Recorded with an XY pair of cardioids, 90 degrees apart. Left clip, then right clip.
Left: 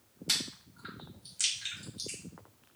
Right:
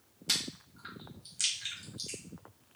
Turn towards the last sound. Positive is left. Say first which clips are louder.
# even
turn(degrees=0)